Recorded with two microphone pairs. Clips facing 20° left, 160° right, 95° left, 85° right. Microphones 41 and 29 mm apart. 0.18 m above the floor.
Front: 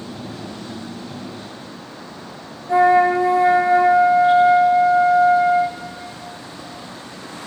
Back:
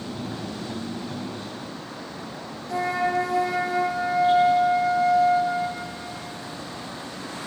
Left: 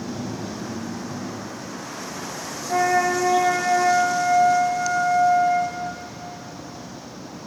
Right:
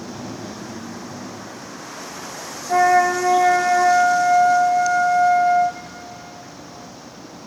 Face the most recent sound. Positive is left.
turn(degrees=-45)